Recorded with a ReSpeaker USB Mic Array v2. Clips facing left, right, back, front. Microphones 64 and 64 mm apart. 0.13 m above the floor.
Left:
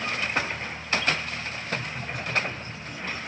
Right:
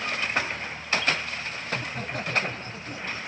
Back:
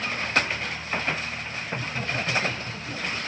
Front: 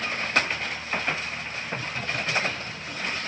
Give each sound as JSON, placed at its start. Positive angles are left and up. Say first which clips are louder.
{"t": 1.7, "sound": "laughter", "louder": "right 1 dB, back 1 dB", "azimuth_deg": -115, "distance_m": 4.5}